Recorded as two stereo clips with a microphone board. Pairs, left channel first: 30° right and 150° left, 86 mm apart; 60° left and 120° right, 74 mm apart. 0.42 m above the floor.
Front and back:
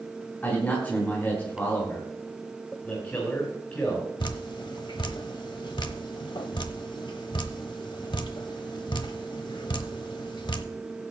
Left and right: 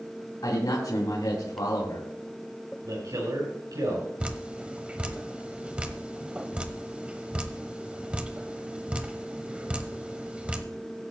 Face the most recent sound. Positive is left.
turn(degrees=-45)